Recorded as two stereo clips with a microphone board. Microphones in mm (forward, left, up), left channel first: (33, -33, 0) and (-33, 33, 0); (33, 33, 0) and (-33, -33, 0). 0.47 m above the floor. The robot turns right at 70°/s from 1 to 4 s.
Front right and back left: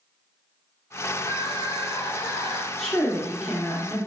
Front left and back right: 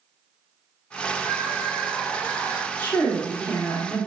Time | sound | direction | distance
1.2 | crying | 95° right | 0.8 m
2.8 | a woman speaking | 30° left | 0.7 m